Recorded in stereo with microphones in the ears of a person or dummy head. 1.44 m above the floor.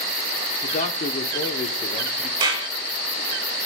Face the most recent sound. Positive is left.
turn(degrees=-25)  # may be behind; listen again after turning